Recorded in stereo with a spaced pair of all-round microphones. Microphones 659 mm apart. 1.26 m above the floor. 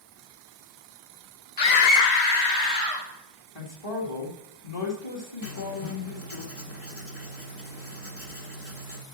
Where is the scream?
40° left (ahead or behind), 0.5 m; by 3.1 s 75° left (ahead or behind), 1.7 m.